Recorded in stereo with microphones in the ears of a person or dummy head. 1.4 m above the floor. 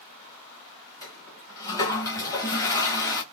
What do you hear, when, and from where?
1.0 s a toilet flushing: 20° left (ahead or behind), 1.5 m